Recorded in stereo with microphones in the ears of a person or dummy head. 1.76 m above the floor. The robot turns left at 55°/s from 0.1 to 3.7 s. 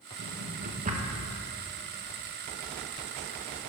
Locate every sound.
0.2 s a drawer: 50° right (ahead or behind), 1.2 m; by 1.2 s 25° right (ahead or behind), 1.2 m